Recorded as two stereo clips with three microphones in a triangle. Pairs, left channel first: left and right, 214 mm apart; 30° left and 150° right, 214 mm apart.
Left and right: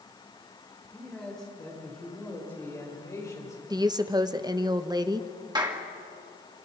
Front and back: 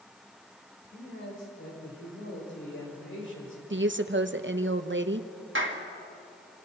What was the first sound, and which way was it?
A man speaking, straight ahead.